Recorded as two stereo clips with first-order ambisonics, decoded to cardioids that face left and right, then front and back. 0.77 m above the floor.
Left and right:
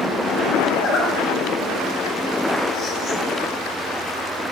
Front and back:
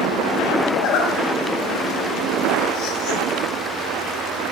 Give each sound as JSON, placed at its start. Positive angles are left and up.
{"t": 0.7, "sound": "a zipper", "azimuth_deg": 35, "distance_m": 1.3}